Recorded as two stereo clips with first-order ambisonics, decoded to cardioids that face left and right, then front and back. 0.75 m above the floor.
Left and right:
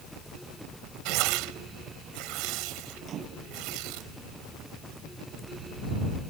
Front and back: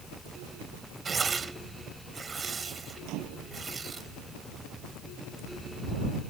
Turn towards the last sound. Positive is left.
turn(degrees=-145)